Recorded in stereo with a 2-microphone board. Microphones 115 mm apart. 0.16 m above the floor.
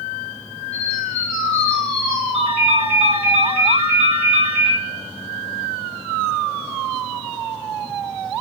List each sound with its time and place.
0.7 s a bird: 10° left (ahead or behind), 2 m
2.3 s a ringtone: 55° right (ahead or behind), 3 m